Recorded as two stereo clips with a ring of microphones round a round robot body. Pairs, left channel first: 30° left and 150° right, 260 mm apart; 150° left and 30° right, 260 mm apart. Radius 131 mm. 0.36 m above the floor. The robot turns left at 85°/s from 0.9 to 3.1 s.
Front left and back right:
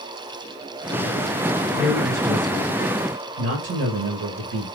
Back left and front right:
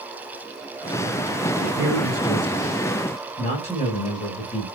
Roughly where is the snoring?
I don't hear snoring.